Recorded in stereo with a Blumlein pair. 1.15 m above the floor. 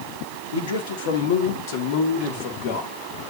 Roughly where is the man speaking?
Ahead left.